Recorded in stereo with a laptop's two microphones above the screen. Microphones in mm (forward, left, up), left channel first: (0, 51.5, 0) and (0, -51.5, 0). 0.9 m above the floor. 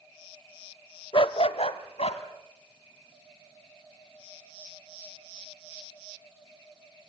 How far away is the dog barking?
About 1.0 m.